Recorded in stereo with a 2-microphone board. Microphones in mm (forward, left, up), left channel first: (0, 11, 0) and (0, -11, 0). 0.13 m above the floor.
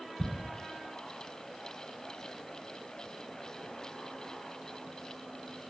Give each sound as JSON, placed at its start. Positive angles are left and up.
{"t": 0.2, "sound": "ticking", "side_deg": 15, "distance_m": 1.2}